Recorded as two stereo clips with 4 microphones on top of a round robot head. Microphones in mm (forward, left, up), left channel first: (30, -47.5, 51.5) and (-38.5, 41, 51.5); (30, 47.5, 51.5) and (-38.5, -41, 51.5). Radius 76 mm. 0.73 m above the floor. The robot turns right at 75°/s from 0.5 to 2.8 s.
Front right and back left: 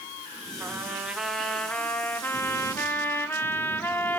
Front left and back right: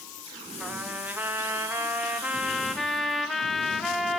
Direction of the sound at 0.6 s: 160° left.